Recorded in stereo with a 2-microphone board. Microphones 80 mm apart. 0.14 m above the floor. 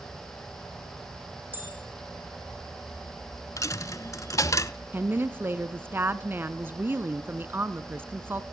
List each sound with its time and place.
1.5 s a bell: 25° right (ahead or behind), 7 m
3.6 s a dropped coin: 45° left (ahead or behind), 0.6 m
4.9 s a woman speaking: 25° right (ahead or behind), 1.2 m